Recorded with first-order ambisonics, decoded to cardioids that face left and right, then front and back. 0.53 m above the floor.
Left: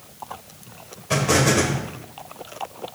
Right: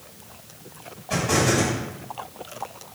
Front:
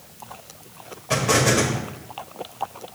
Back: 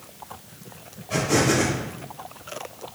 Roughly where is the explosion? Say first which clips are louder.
Left 3 dB, front 2 dB; ahead left.